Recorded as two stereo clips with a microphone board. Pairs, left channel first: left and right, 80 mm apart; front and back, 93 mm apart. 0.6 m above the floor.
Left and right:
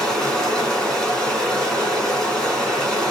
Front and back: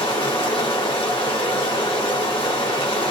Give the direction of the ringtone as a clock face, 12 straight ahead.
No ringtone in this recording.